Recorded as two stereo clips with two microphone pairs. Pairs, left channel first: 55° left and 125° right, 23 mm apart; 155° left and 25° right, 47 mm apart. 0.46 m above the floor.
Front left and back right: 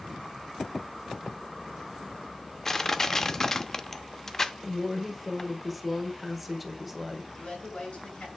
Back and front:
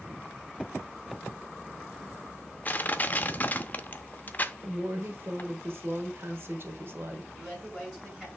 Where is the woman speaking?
35° right, 1.4 m.